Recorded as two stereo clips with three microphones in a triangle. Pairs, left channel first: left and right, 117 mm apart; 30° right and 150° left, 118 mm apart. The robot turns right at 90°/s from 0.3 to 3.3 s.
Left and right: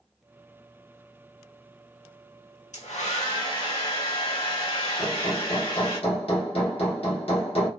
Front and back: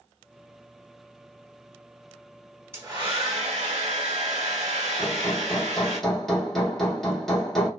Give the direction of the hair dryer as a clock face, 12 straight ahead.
9 o'clock.